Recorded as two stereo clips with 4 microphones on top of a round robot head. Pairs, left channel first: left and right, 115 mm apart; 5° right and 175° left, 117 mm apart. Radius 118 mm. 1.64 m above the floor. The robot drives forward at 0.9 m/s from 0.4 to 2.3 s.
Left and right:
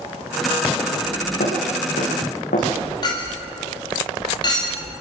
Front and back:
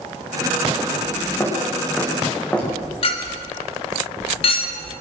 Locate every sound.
1.4 s footsteps: 60° left, 9 m; by 2.7 s 75° left, 8.5 m
3.0 s a clink: 25° left, 2.0 m